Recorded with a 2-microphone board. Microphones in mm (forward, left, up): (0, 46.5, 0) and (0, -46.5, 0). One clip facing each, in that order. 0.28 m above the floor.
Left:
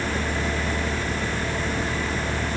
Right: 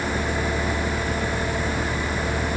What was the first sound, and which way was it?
Only background noise.